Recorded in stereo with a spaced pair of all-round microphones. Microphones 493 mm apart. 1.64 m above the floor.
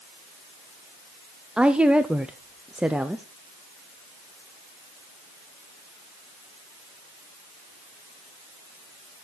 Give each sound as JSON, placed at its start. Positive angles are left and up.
{"t": 1.6, "sound": "a woman speaking", "side_deg": -5, "distance_m": 0.5}